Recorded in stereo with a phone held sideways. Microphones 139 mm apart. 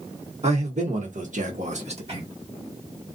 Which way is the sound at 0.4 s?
50° right (ahead or behind).